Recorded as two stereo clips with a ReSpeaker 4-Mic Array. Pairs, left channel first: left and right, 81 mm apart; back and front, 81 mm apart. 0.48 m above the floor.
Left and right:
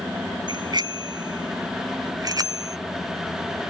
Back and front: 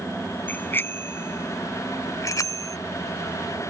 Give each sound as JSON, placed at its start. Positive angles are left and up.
{"t": 0.5, "sound": "a bicycle bell", "azimuth_deg": -110}